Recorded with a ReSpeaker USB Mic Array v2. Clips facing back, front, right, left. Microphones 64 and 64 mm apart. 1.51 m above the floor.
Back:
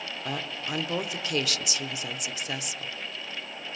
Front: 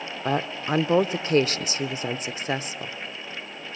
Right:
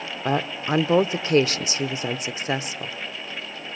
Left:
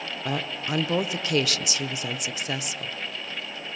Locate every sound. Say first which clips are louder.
0.2 s a woman speaking: front 9 dB, right 6 dB; 45° right, 0.6 m